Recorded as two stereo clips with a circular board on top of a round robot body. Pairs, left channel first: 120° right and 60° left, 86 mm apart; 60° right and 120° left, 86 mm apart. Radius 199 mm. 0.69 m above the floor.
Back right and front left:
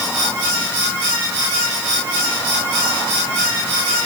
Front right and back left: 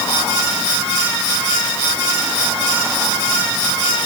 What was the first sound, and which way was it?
Only background noise.